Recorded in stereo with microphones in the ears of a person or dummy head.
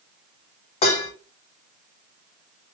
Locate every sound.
0.8 s dishes clattering: 35° left (ahead or behind), 0.9 m